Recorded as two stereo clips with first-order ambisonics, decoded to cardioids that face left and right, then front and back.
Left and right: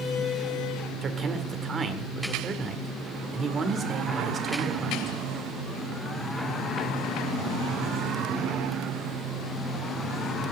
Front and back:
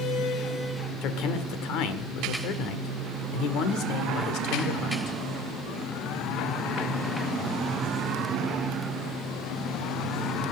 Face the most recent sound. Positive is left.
turn(degrees=-20)